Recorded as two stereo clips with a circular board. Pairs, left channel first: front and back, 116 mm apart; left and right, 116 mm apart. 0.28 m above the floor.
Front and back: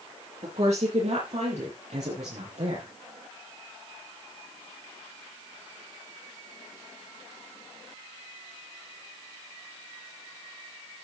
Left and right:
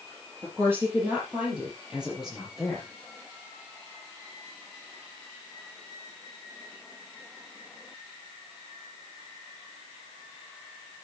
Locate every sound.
0.4 s a woman speaking: 160° right, 6 m; by 2.9 s straight behind, 7 m